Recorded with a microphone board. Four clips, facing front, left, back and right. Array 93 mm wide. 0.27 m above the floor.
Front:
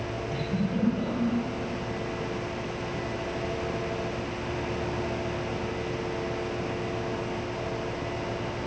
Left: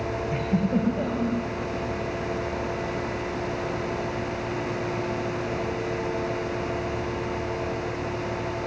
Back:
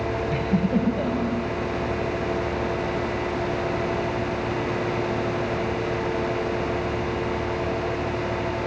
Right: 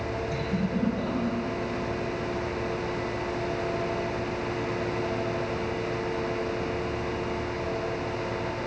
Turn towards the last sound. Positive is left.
turn(degrees=150)